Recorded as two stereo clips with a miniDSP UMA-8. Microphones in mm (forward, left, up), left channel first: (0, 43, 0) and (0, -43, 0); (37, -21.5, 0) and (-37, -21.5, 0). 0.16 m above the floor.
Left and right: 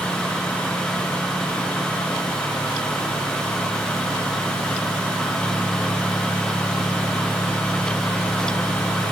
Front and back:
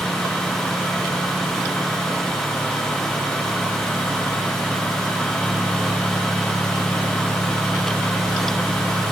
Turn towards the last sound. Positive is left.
No sound to turn to.